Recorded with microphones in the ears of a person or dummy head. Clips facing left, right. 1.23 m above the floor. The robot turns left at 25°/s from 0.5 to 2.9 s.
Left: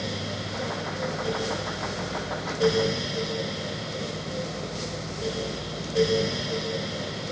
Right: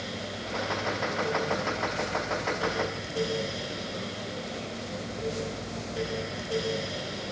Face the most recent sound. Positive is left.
No sound to turn to.